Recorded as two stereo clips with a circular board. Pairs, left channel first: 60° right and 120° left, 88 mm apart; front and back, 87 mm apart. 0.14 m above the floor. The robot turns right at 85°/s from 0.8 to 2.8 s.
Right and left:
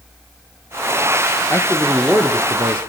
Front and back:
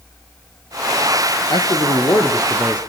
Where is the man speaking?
5° right, 2 m; by 2.8 s 105° left, 2 m.